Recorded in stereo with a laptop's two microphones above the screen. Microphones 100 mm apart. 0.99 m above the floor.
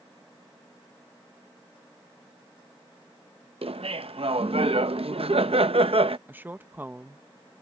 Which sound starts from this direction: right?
Laughter, at 3.6 s.